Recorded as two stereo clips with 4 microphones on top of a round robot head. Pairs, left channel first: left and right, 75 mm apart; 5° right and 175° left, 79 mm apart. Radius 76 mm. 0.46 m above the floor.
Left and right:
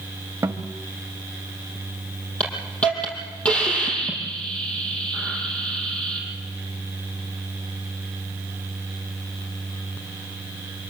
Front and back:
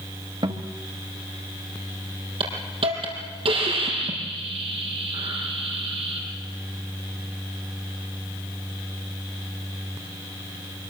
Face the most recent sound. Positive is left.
turn(degrees=165)